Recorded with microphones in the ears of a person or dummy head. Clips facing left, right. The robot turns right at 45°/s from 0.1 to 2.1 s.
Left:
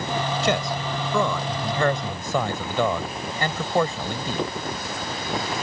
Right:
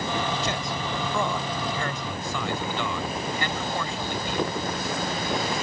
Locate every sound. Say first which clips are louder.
0.4 s a man speaking: left 5 dB; 65° left (ahead or behind); by 4.5 s 40° left (ahead or behind)